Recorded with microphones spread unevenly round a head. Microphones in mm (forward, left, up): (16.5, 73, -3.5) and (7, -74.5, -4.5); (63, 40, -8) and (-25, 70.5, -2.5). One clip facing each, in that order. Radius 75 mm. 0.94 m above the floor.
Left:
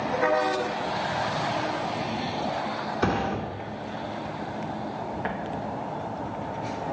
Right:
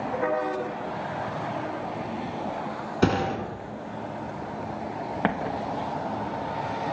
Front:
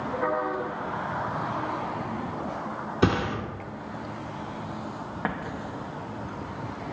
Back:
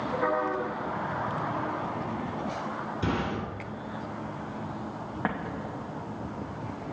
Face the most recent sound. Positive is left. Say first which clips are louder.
# right 3 dB, even
turn(degrees=-110)